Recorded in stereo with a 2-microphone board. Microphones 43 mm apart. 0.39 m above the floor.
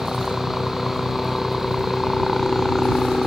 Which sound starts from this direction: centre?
A helicopter, at 0.0 s.